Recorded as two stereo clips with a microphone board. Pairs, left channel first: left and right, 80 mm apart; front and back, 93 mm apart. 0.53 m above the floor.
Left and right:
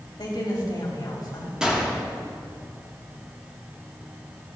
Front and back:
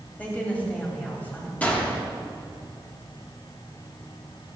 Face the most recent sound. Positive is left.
turn(degrees=-35)